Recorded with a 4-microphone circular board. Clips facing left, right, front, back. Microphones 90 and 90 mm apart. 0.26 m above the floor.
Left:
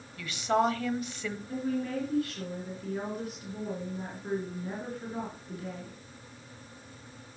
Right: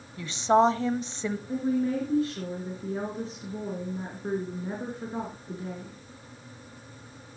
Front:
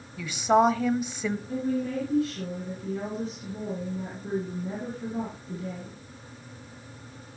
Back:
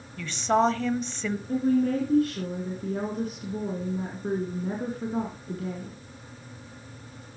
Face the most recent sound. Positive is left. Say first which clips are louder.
# right 5 dB, back 8 dB
turn(degrees=-150)